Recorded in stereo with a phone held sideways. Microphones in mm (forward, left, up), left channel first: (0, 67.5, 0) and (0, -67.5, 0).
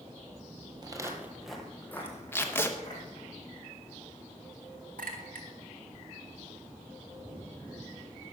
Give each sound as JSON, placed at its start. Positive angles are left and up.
{"t": 0.8, "sound": "footsteps", "side_deg": -30, "distance_m": 1.2}
{"t": 2.3, "sound": "tape being pulled", "side_deg": 15, "distance_m": 0.9}
{"t": 5.0, "sound": "a clink", "side_deg": -80, "distance_m": 1.5}